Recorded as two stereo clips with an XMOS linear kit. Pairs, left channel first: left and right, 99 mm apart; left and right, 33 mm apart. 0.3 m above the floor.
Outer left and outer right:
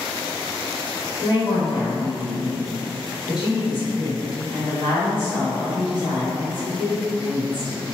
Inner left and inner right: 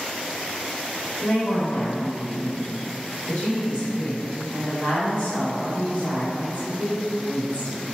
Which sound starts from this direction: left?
A woman speaking, at 1.2 s.